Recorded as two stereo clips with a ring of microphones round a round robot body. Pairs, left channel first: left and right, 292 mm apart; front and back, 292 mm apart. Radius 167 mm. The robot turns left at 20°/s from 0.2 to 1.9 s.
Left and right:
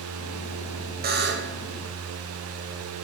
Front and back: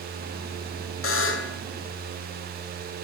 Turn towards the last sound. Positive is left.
turn(degrees=-55)